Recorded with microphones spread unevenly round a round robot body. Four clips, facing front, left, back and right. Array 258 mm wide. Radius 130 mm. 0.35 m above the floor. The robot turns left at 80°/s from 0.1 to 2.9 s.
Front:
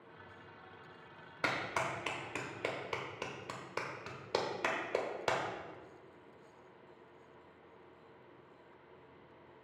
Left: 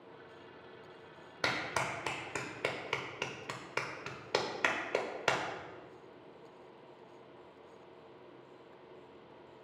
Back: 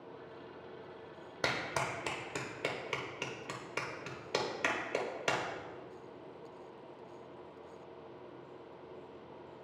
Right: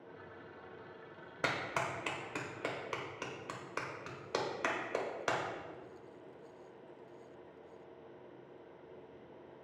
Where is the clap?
175° right, 1.2 m; by 5.4 s 70° left, 1.2 m.